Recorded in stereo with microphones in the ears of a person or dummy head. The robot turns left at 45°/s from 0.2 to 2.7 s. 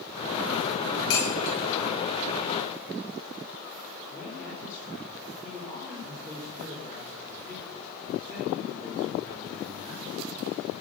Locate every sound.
1.1 s dishes clattering: 70° left (ahead or behind), 5.5 m; by 1.6 s 50° left (ahead or behind), 5.5 m
4.1 s a man speaking: 15° left (ahead or behind), 4.5 m